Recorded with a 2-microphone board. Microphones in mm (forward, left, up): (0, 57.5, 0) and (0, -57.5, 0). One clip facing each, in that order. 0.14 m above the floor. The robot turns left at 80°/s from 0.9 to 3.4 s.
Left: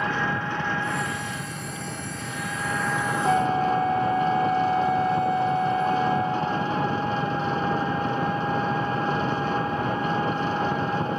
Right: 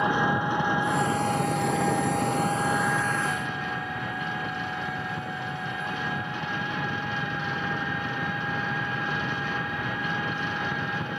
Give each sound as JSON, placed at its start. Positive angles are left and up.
{"t": 0.0, "sound": "an engine running", "azimuth_deg": -15}
{"t": 3.2, "sound": "a flute", "side_deg": 55}